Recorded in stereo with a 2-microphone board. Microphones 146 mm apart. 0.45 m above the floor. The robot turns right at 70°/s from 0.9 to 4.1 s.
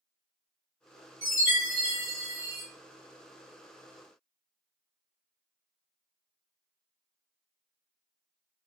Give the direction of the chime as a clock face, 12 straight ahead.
4 o'clock.